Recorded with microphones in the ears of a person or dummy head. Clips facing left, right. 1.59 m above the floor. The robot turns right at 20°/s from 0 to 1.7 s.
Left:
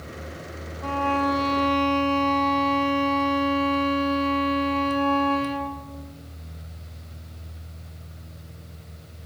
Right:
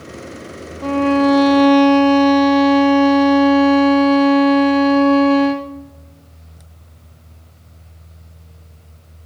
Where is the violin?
65° right (ahead or behind), 0.6 m; by 5.7 s 70° right (ahead or behind), 0.6 m.